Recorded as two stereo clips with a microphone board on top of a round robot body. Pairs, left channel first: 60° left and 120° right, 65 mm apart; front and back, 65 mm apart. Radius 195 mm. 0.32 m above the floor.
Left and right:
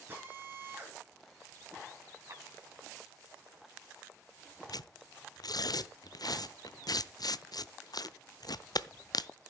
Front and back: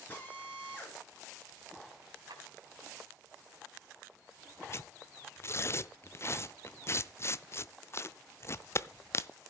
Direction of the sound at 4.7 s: 50° left.